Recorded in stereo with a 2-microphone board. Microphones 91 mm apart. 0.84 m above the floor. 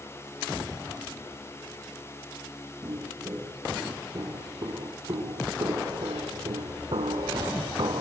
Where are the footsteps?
40° right (ahead or behind), 7.5 m; by 8.0 s 55° right (ahead or behind), 2 m.